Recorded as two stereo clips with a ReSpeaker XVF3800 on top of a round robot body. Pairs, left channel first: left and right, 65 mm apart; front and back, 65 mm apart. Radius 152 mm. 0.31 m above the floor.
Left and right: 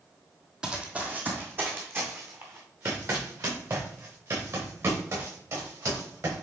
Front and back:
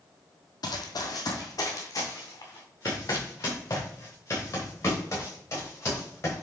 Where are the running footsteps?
10° right, 1.0 m; by 6.4 s 50° right, 5 m.